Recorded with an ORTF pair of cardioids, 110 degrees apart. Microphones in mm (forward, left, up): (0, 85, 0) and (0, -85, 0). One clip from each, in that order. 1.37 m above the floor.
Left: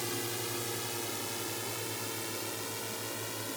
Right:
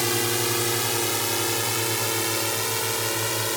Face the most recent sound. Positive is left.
turn(degrees=-75)